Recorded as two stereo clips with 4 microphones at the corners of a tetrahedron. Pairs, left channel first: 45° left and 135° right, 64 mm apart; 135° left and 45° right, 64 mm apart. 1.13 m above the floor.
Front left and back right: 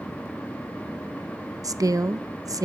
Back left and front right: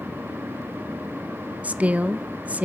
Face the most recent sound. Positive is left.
turn(degrees=-110)